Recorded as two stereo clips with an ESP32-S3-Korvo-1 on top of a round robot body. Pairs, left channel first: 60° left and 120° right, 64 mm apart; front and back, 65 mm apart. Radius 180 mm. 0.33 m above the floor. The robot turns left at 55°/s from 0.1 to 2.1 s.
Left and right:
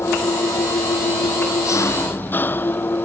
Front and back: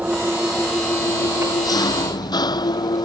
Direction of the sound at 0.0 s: 110° left.